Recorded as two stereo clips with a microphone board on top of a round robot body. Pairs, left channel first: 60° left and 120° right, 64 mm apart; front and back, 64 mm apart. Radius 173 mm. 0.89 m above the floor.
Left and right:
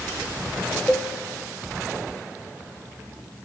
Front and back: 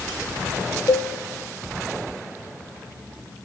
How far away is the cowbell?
About 1.3 m.